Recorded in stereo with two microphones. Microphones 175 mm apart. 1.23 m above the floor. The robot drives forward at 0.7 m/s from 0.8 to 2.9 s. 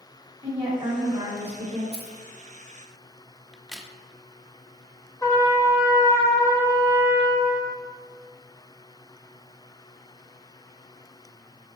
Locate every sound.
0.4 s a woman speaking: 15° right (ahead or behind), 2.5 m; by 1.8 s 10° right (ahead or behind), 3.5 m
1.9 s keys jangling: 65° right (ahead or behind), 1.0 m; by 2.2 s 75° right (ahead or behind), 0.9 m
3.5 s a crack: centre (ahead or behind), 0.6 m
5.2 s a trumpet: 20° left (ahead or behind), 1.4 m